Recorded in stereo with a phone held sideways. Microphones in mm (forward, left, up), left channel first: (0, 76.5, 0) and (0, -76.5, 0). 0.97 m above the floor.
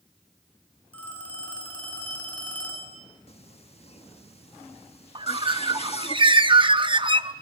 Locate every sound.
0.9 s a phone ringing: 10° left (ahead or behind), 6.5 m
3.3 s singing: 40° left (ahead or behind), 1.6 m
5.2 s a bird: 35° right (ahead or behind), 0.8 m